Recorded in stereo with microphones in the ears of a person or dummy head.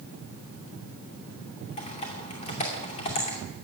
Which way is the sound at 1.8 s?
35° left (ahead or behind).